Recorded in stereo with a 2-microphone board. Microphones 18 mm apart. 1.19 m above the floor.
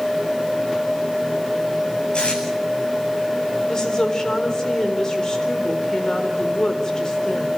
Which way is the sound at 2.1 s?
70° left (ahead or behind).